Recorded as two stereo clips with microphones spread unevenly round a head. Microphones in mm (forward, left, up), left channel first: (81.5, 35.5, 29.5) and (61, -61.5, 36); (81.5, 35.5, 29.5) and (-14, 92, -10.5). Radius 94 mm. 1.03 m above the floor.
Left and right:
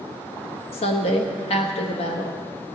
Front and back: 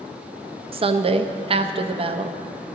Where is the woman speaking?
120° left, 0.9 m.